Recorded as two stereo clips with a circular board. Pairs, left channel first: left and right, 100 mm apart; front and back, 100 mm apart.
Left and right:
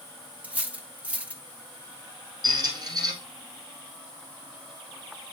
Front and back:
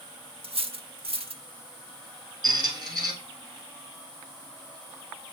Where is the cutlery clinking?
165° right, 0.8 m.